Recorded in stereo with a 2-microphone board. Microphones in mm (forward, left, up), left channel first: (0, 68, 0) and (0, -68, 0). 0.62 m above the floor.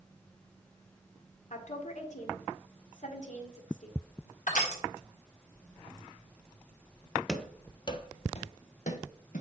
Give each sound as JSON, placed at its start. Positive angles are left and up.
{"t": 1.5, "sound": "a woman speaking", "side_deg": 60, "distance_m": 1.8}
{"t": 4.5, "sound": "crushing", "side_deg": 70, "distance_m": 2.5}
{"t": 7.3, "sound": "running footsteps", "side_deg": 0, "distance_m": 0.7}